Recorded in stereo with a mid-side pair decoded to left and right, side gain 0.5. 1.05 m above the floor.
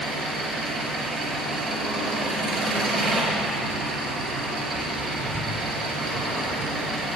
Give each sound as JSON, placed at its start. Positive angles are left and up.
{"t": 0.0, "sound": "an engine running", "azimuth_deg": -55, "distance_m": 5.5}